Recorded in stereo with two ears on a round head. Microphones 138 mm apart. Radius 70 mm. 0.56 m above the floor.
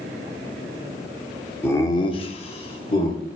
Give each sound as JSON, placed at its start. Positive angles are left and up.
{"t": 1.6, "sound": "laughter", "side_deg": 15, "distance_m": 1.2}